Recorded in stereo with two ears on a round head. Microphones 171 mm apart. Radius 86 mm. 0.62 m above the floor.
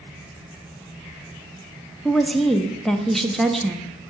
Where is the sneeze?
I don't hear a sneeze.